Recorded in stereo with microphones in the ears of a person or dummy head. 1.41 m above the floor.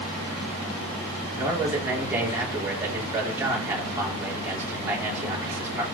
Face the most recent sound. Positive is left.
turn(degrees=-15)  # may be behind; listen again after turning